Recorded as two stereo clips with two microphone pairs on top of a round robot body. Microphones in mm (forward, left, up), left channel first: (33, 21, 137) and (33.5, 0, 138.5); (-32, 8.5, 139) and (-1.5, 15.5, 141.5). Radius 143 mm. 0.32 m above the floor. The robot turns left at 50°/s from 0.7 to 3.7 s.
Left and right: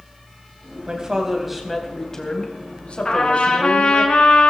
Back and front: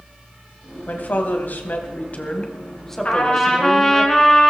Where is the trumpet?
150° left, 3.5 m; by 4.5 s 115° left, 3.5 m.